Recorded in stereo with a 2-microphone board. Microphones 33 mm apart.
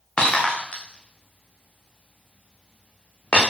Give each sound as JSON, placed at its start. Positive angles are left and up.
{"t": 0.2, "sound": "breaking glass", "side_deg": 35, "distance_m": 6.5}